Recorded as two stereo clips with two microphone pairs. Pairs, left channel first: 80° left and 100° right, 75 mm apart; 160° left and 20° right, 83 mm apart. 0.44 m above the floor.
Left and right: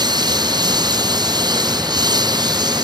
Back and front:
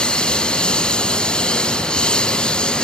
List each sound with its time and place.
0.0 s a lawn mower: 125° right